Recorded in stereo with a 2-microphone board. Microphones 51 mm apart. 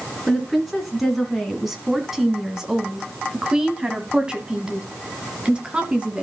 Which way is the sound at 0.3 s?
Centre (ahead or behind).